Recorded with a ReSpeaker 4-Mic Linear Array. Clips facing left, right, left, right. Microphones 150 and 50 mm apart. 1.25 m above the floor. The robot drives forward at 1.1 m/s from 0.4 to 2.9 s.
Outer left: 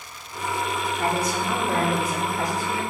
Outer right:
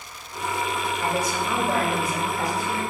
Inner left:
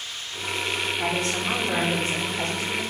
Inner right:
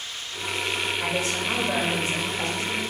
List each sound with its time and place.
1.0 s a woman speaking: 65° left (ahead or behind), 3 m; by 2.8 s 40° left (ahead or behind), 4.5 m